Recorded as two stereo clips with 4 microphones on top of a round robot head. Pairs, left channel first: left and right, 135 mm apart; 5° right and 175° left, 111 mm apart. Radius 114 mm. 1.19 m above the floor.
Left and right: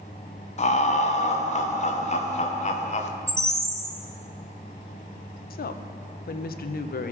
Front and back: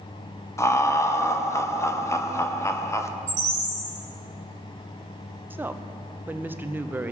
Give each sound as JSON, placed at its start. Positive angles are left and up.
{"t": 0.6, "sound": "laughter", "azimuth_deg": 60, "distance_m": 1.2}
{"t": 3.3, "sound": "a bird", "azimuth_deg": -160, "distance_m": 1.6}
{"t": 5.5, "sound": "a woman speaking", "azimuth_deg": 100, "distance_m": 0.7}